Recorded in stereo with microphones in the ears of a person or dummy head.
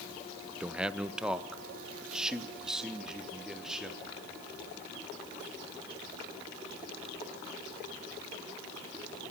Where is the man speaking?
5° right (ahead or behind), 1.1 m; by 4.2 s centre (ahead or behind), 4 m.